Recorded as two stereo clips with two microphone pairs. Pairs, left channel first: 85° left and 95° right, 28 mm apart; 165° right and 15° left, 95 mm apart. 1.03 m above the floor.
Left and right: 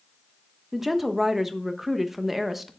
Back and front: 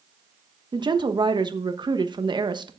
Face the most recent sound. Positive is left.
turn(degrees=-15)